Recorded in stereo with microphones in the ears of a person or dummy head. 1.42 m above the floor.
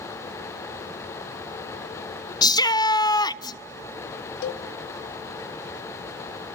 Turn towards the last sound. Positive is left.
turn(degrees=55)  # may be behind; listen again after turning